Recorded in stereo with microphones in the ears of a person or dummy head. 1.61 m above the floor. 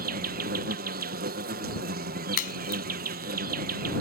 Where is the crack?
55° left (ahead or behind).